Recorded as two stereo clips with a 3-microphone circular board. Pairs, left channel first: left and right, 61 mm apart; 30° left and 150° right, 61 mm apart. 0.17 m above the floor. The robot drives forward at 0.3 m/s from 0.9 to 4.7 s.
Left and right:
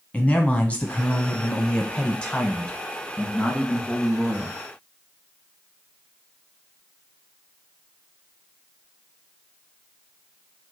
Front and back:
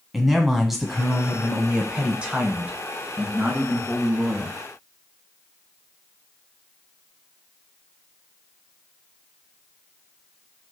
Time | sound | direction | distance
0.1 | a man speaking | 130° left | 1.1 m